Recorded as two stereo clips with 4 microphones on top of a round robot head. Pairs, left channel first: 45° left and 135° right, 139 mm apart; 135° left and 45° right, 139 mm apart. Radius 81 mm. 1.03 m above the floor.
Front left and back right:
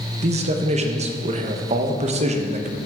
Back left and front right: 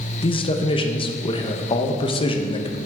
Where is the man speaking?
175° right, 1.0 m.